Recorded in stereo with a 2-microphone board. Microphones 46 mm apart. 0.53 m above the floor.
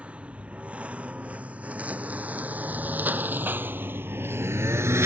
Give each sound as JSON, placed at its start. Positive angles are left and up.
{"t": 0.0, "sound": "a lawn mower", "side_deg": -25}